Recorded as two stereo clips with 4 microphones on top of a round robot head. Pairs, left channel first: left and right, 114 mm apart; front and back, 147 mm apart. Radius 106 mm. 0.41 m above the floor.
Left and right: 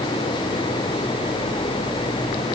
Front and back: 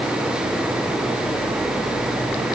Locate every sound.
Only background noise.